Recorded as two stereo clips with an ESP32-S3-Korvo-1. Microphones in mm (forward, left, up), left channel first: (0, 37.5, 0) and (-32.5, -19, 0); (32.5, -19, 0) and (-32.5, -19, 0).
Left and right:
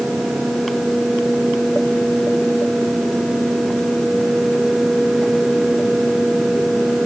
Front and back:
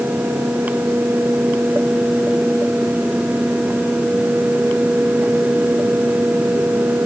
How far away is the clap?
No clap in this recording.